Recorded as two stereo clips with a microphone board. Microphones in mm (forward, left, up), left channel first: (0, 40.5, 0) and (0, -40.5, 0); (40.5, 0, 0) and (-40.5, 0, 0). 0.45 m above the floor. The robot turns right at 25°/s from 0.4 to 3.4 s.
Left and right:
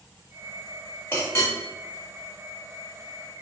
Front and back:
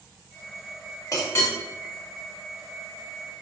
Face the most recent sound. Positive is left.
turn(degrees=95)